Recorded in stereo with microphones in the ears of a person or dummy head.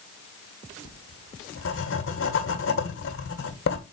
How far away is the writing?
About 1.5 m.